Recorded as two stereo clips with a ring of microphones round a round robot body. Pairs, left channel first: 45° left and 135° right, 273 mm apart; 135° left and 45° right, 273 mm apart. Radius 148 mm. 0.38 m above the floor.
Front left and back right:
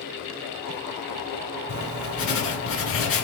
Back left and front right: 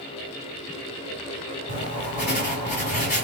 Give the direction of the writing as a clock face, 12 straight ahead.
9 o'clock.